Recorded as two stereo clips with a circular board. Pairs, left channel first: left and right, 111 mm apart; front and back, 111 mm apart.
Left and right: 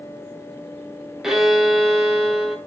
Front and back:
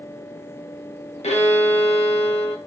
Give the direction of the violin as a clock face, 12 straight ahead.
12 o'clock.